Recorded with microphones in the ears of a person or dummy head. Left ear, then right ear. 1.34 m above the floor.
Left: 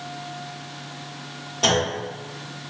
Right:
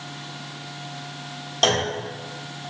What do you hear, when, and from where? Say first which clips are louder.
1.6 s a clunk: even; 45° right (ahead or behind), 1.2 m